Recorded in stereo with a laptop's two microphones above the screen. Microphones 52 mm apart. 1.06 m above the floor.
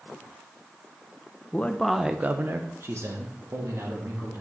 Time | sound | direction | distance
1.5 | a man speaking | 30° left (ahead or behind) | 0.6 m